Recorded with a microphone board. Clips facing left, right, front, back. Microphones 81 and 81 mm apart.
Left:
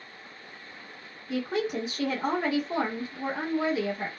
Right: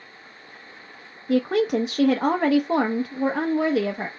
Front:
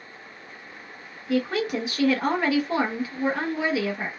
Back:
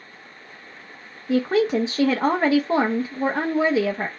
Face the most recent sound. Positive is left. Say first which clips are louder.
# right 8 dB, back 5 dB
turn(degrees=-120)